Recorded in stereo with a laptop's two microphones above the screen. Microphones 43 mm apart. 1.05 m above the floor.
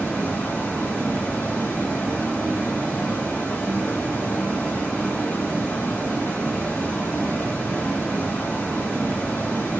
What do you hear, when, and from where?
0.0 s running water: 35° left (ahead or behind), 1.8 m